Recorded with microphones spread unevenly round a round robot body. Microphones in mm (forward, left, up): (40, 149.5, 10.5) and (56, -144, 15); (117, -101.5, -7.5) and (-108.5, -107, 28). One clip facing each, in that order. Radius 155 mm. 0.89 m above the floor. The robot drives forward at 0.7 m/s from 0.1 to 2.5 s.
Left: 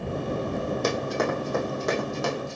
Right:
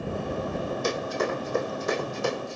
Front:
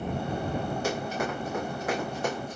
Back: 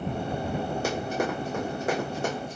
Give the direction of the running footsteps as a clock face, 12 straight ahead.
8 o'clock.